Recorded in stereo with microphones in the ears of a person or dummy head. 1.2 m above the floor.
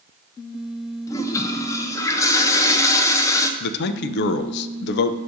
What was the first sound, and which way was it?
A toilet flushing, 20° left (ahead or behind).